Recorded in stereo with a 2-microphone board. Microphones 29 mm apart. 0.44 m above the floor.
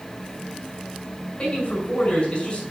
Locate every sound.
1.4 s a man speaking: 45° left (ahead or behind), 5 m